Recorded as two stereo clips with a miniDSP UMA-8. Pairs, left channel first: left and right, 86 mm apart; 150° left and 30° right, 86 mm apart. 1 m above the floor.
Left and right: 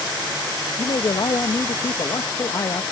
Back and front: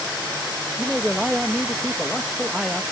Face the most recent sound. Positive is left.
turn(degrees=50)